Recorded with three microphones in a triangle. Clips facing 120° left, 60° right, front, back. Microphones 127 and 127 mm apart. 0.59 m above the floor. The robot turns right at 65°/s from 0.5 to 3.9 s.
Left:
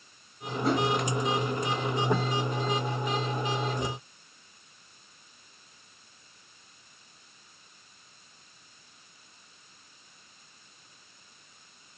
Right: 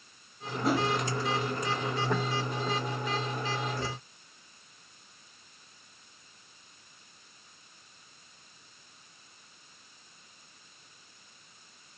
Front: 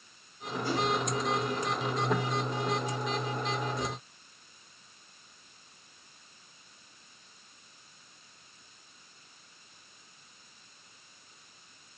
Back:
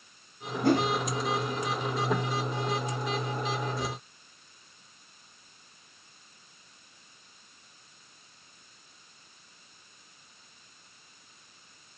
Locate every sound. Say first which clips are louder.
0.6 s a whoosh: left 1 dB, back 7 dB; 150° right, 1.2 m; by 0.9 s 135° right, 1.2 m